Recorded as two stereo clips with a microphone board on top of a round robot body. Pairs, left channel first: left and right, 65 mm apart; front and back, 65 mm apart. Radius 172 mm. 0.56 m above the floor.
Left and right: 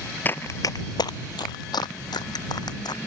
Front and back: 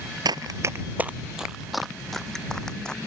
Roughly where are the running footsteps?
Behind left.